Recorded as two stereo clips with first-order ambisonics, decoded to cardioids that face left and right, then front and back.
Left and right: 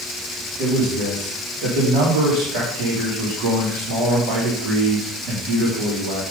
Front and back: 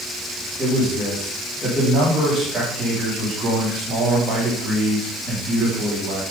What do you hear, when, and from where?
0.6 s a man speaking: 105° right, 3 m